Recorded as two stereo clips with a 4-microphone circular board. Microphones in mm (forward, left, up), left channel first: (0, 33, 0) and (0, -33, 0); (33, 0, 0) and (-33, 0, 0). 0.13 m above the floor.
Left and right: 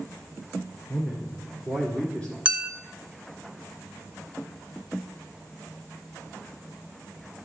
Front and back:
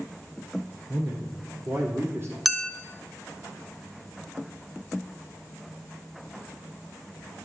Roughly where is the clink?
Right.